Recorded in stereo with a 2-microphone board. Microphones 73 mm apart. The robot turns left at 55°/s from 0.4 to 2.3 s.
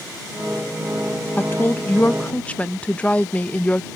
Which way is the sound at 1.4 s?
25° left (ahead or behind).